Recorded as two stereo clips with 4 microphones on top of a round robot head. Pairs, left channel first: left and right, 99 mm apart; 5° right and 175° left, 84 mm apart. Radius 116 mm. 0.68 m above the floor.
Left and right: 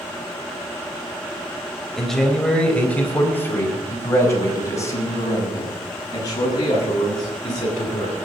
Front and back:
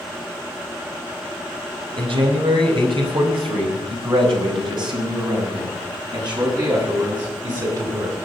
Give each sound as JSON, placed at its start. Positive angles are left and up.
{"t": 2.0, "sound": "a man speaking", "azimuth_deg": 175, "distance_m": 4.0}